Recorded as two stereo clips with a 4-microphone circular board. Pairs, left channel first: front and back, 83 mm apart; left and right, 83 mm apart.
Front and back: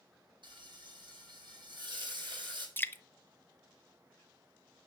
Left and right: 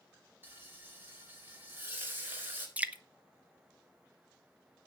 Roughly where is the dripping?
Ahead right.